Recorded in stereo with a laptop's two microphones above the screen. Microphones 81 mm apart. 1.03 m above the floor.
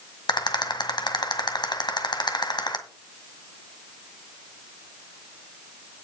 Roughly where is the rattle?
Left.